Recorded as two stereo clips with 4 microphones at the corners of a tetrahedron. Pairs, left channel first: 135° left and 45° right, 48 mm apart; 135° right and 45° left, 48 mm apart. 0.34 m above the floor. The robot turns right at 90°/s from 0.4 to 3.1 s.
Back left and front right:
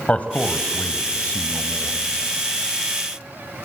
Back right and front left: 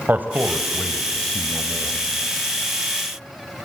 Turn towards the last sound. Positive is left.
turn(degrees=-30)